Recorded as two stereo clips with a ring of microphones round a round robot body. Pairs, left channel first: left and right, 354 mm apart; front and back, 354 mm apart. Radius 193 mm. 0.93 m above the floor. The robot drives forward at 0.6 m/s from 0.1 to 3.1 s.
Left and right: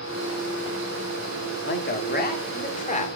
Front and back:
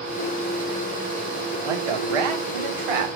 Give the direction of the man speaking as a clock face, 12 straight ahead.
7 o'clock.